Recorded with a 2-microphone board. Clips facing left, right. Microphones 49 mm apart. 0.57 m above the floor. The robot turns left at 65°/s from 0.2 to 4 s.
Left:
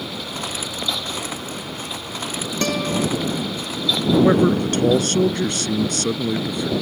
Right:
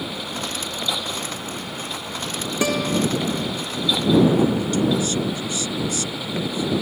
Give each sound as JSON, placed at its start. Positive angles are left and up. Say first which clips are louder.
{"t": 2.6, "sound": "a guitar", "louder": "right 1 dB", "side_deg": -10}
{"t": 4.1, "sound": "a man speaking", "louder": "left 2 dB", "side_deg": 60}